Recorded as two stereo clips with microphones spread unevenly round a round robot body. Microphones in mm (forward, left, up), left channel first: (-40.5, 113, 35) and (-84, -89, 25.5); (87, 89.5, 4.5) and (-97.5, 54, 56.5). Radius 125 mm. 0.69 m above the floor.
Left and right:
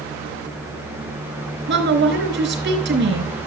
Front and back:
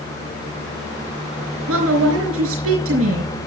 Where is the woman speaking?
130° right, 4 m.